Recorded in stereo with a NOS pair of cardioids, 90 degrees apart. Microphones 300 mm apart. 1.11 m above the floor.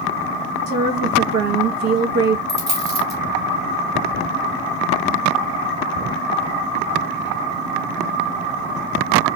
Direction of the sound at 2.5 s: 10° right.